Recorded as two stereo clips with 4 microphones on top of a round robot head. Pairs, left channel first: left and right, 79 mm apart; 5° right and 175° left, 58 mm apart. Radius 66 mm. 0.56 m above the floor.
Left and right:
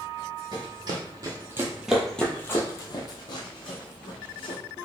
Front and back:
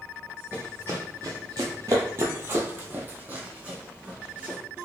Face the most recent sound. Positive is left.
turn(degrees=105)